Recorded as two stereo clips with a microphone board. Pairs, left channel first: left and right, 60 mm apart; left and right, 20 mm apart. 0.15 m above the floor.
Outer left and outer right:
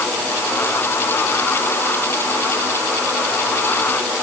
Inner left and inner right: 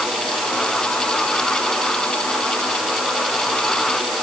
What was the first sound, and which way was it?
Only background noise.